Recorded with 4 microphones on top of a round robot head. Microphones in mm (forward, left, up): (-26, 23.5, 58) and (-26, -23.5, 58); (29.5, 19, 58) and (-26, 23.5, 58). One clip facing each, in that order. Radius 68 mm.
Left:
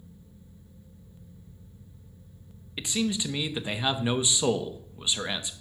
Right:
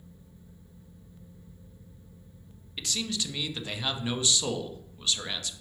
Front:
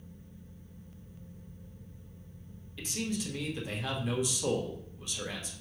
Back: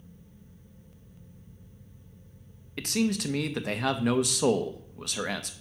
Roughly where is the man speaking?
Behind.